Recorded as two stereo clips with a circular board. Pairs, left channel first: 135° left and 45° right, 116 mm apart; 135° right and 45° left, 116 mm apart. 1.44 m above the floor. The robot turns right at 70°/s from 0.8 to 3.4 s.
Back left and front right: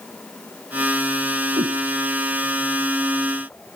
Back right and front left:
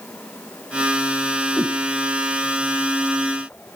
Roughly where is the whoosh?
Ahead right.